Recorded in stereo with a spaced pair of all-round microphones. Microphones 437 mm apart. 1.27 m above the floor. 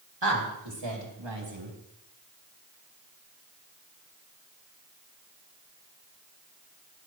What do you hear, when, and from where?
0.2 s a woman speaking: 75° right (ahead or behind), 2.5 m; by 1.7 s 80° right, 3 m